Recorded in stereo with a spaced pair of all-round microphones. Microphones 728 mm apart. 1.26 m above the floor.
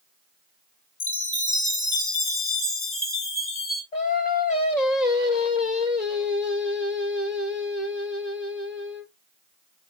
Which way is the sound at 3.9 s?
65° left (ahead or behind).